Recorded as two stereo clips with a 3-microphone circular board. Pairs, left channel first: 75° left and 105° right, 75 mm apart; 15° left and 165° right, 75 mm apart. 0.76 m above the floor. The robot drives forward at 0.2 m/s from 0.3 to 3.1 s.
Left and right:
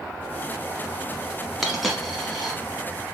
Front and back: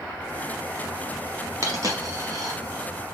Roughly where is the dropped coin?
Behind.